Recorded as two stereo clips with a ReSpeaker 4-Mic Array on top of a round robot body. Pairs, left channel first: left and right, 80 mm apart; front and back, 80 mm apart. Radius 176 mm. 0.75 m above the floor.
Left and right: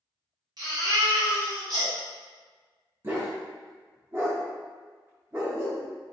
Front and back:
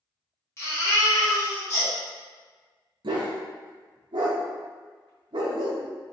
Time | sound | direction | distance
0.6 | a baby crying | 55° right | 1.8 m
3.0 | a dog barking | 155° right | 0.5 m